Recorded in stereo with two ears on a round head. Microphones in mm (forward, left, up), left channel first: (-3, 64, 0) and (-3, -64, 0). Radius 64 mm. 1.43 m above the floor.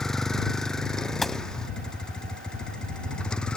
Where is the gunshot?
Centre (ahead or behind).